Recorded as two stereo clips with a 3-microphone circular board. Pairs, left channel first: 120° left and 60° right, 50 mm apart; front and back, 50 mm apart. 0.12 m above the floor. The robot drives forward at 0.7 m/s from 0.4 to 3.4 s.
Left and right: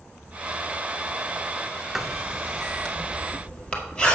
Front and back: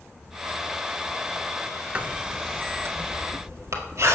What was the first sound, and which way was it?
Writing, 140° right.